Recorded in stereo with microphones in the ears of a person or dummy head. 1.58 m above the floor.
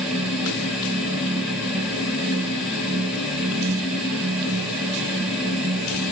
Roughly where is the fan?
Centre.